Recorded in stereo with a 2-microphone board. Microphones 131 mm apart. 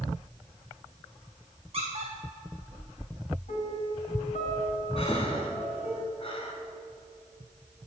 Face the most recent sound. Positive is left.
turn(degrees=45)  # may be behind; listen again after turning